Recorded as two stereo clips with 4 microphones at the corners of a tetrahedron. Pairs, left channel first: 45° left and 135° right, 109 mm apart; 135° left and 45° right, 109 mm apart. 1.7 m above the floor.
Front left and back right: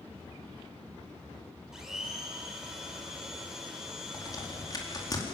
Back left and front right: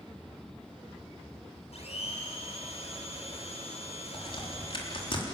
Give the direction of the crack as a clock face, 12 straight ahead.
9 o'clock.